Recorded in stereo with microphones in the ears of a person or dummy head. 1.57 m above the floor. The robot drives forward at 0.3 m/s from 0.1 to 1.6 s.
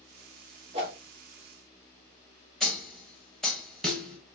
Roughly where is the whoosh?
Right.